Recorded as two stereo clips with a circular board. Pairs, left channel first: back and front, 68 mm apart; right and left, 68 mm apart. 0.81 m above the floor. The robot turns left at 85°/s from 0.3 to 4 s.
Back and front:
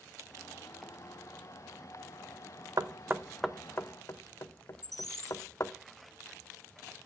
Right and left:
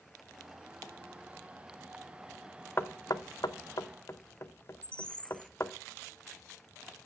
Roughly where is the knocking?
Ahead right.